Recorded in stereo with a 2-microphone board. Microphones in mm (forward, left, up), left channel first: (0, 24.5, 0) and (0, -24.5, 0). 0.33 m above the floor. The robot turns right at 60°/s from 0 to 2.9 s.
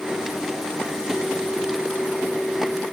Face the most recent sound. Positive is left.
No sound to turn to.